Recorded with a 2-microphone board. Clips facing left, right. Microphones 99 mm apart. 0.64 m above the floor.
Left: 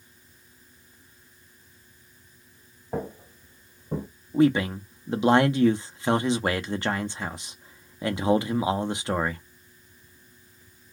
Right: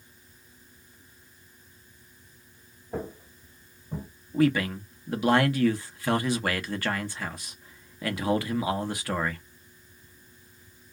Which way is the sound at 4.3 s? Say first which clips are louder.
Left 3 dB; 25° left (ahead or behind).